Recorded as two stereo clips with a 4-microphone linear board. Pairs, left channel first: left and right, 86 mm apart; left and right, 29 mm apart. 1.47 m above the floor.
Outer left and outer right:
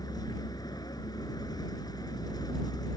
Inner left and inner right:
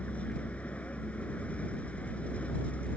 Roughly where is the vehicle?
Left.